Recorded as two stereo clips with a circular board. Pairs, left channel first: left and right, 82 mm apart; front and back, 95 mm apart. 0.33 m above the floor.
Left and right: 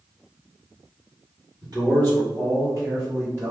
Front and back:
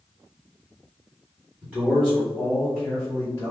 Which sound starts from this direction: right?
A man speaking, at 1.6 s.